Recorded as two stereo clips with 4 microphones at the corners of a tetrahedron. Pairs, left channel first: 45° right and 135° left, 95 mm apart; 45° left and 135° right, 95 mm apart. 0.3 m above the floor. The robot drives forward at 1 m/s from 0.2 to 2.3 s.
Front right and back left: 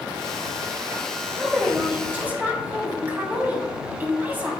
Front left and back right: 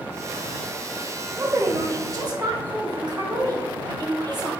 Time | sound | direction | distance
1.4 | a woman speaking | 140° right | 1.6 m